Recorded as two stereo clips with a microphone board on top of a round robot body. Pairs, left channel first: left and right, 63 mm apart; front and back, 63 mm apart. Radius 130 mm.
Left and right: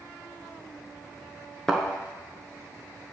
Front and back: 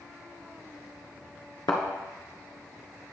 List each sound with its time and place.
1.7 s a thud: 10° left, 0.9 m